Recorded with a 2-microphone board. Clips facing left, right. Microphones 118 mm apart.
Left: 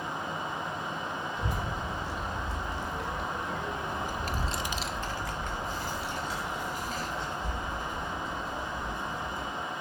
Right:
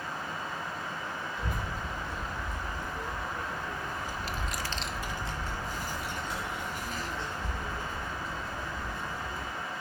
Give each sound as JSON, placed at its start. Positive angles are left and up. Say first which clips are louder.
{"t": 1.4, "sound": "a child speaking", "louder": "left 2 dB", "side_deg": 85, "distance_m": 2.0}